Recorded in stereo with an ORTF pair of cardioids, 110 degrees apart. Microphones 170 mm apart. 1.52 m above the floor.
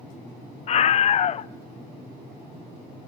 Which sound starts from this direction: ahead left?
A scream, at 0.7 s.